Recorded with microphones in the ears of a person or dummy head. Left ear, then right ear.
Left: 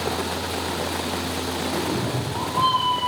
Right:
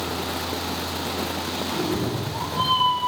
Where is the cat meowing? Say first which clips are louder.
Even; 40° left (ahead or behind), 1.2 m; by 3.1 s 10° left (ahead or behind), 1.3 m.